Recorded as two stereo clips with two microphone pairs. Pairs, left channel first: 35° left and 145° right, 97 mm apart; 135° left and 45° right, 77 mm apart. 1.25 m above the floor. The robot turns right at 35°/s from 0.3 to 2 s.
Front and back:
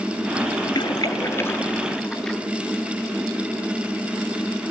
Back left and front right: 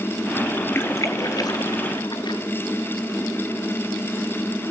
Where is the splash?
75° left, 3 m; by 2.4 s 120° left, 3 m.